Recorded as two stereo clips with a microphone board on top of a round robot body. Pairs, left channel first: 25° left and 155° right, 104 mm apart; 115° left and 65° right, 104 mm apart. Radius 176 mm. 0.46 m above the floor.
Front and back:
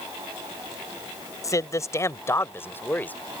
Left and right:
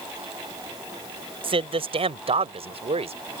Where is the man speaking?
35° right; by 3.2 s 50° right.